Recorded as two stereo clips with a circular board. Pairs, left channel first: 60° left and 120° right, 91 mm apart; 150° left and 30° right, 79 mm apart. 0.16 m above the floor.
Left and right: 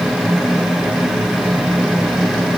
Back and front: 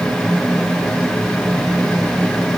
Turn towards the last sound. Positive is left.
No sound to turn to.